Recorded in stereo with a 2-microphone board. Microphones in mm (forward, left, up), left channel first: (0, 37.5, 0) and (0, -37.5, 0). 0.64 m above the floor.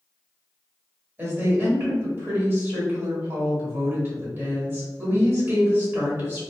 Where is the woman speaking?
30° right (ahead or behind), 1.6 m.